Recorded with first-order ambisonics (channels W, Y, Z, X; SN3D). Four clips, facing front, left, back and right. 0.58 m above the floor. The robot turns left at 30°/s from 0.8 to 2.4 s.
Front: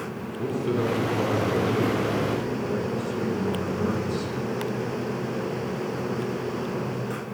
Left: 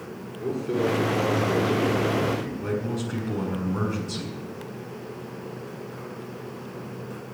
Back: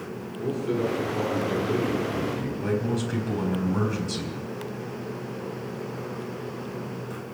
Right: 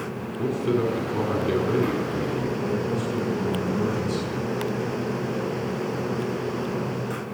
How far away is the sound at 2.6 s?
About 4 m.